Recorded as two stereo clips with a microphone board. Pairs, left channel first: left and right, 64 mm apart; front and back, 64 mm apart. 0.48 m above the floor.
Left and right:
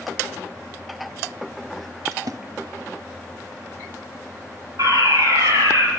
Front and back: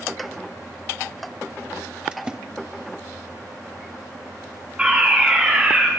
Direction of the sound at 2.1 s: 105° right.